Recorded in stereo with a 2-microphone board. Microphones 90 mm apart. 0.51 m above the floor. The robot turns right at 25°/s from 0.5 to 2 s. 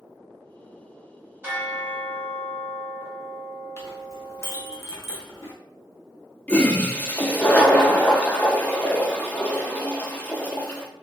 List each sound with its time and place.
1.4 s a bell: 25° right (ahead or behind), 1.3 m; by 4.8 s 15° right (ahead or behind), 1.3 m
3.8 s a clink: 30° left (ahead or behind), 0.7 m
6.5 s a toilet flushing: 15° left (ahead or behind), 0.5 m